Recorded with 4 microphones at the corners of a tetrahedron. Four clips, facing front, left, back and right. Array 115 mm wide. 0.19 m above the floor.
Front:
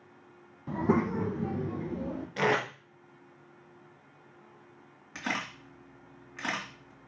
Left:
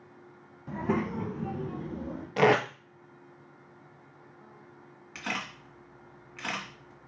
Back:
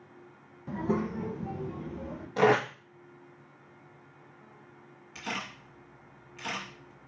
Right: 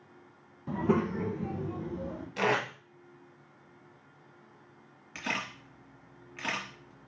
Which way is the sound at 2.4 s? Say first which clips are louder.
Left 6 dB, back 5 dB; 110° left.